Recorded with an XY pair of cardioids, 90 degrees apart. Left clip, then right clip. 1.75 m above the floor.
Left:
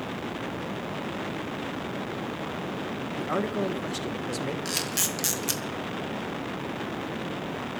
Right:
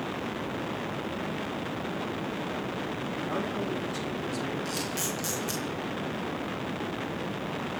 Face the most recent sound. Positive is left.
turn(degrees=65)